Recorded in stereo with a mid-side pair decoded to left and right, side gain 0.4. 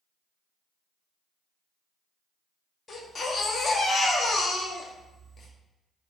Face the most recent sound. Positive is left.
turn(degrees=45)